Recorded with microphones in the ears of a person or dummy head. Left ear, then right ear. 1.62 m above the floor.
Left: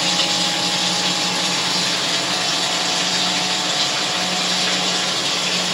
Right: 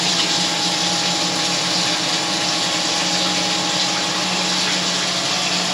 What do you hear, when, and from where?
0.0 s running water: 10° left (ahead or behind), 0.8 m